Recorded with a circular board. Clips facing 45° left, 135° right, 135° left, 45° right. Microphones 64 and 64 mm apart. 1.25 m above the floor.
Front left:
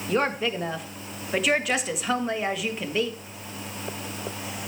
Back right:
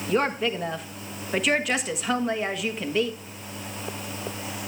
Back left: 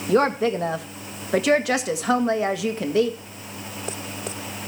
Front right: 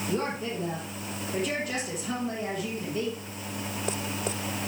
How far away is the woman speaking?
About 1.5 m.